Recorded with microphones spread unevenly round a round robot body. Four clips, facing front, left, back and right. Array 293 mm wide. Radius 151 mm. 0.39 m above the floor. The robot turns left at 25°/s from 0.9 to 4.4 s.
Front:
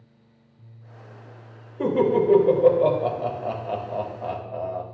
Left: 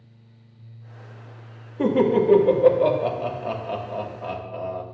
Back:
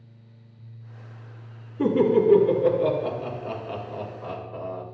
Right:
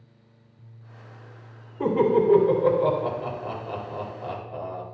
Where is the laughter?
65° left, 2.5 m; by 4.8 s straight ahead, 2.5 m.